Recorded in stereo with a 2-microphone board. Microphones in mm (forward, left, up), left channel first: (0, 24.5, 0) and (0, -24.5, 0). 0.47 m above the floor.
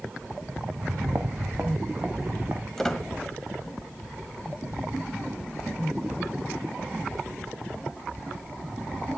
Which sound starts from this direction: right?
Footsteps, at 0.8 s.